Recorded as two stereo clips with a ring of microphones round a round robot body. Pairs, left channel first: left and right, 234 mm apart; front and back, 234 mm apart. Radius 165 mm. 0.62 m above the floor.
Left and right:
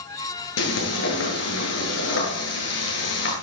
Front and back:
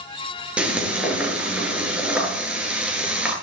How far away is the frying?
About 9.5 m.